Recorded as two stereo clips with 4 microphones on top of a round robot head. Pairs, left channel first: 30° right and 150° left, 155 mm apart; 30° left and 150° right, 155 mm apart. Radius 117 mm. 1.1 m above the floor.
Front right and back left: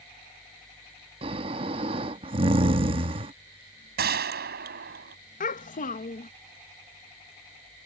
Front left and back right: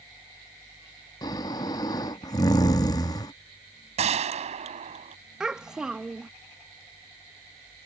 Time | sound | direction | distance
1.2 | snoring | 95° left | ?
4.0 | a gunshot | 165° left | ?
5.4 | a child speaking | 65° right | ?